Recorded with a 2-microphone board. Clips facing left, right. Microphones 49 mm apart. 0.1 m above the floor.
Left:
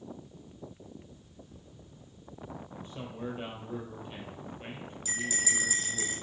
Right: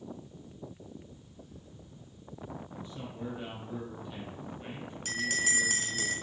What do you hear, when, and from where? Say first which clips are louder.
2.7 s a man speaking: even; 35° left (ahead or behind), 2.5 m
5.0 s a bell: right 2 dB; 60° right (ahead or behind), 0.8 m